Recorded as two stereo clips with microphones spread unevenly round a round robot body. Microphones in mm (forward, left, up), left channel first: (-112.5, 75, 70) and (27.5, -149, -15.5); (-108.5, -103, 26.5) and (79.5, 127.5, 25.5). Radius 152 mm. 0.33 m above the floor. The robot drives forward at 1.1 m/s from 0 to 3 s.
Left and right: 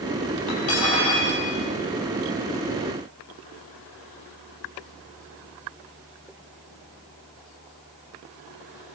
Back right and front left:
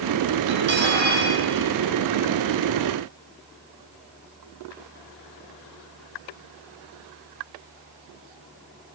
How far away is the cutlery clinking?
About 7.5 m.